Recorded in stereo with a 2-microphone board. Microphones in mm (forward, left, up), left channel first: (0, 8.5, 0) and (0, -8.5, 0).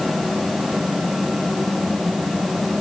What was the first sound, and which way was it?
Only background noise.